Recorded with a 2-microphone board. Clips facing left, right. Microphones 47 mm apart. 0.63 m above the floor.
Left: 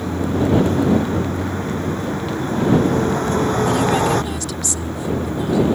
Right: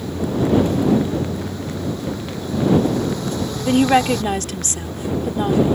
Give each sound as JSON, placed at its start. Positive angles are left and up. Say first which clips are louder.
{"t": 0.0, "sound": "a vehicle", "louder": "left 1 dB", "side_deg": 45}
{"t": 3.6, "sound": "a woman speaking", "louder": "right 2 dB", "side_deg": -50}